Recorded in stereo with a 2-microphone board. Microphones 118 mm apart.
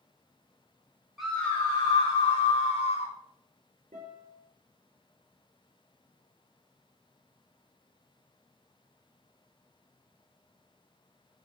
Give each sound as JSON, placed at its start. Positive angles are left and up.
{"t": 1.2, "sound": "a scream", "side_deg": 0, "distance_m": 1.3}
{"t": 3.9, "sound": "a guitar", "side_deg": -75, "distance_m": 4.5}